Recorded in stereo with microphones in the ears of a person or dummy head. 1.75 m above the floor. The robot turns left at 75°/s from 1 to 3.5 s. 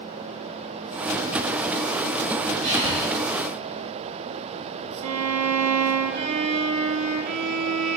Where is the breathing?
80° right, 2.5 m; by 3.1 s 115° right, 2.5 m.